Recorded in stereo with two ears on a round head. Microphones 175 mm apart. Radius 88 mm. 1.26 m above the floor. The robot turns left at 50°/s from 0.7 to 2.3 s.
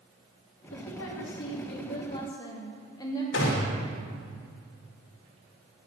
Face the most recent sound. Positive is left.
turn(degrees=65)  # may be behind; listen again after turning